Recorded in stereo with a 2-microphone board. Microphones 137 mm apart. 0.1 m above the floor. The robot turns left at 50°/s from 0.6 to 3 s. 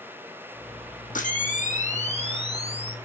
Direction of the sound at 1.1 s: 100° left.